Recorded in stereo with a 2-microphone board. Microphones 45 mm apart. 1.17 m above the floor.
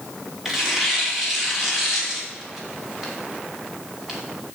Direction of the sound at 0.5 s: 5° right (ahead or behind).